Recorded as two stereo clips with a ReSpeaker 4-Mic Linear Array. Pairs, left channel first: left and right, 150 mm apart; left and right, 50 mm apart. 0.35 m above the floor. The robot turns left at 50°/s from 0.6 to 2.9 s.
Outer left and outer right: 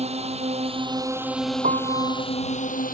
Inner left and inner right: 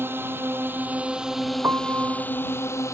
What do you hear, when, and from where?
0.0 s a drone: 135° right; by 3.0 s 110° left
1.6 s a piano: 120° right; by 2.2 s 150° right